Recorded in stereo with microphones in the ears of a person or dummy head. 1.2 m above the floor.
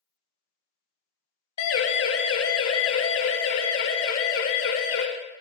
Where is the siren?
75° left (ahead or behind), 2.5 m; by 5.0 s 70° left (ahead or behind), 4 m.